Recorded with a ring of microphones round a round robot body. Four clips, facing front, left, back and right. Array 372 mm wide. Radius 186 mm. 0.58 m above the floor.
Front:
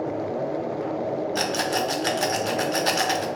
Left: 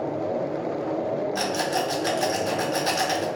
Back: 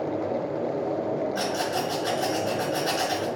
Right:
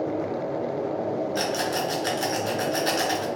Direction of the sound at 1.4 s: Straight ahead.